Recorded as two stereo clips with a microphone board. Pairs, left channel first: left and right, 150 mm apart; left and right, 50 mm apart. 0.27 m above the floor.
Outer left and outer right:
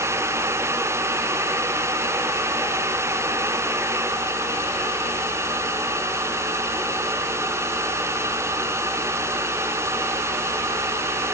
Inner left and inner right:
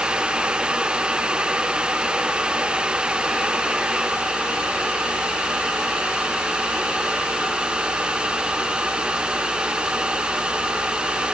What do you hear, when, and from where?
Only background noise.